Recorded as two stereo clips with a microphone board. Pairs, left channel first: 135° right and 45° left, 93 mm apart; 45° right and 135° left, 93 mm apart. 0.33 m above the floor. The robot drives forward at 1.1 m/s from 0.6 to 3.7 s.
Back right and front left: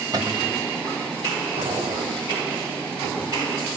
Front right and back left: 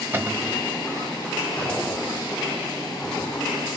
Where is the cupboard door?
75° left, 1.3 m.